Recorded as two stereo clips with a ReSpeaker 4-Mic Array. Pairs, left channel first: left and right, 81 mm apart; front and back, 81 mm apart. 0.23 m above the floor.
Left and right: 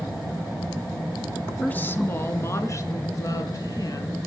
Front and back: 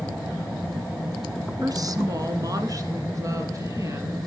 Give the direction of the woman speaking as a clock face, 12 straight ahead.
7 o'clock.